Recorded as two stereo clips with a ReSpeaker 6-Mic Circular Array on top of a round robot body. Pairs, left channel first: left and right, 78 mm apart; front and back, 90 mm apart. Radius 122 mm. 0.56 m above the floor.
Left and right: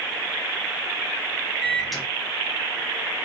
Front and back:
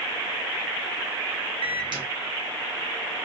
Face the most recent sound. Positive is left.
turn(degrees=180)